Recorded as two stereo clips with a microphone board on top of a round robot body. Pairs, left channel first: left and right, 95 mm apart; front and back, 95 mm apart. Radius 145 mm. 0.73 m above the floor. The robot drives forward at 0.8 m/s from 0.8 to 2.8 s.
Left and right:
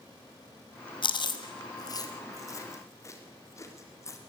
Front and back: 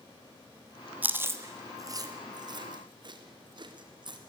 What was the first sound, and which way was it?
Chewing, 110° left.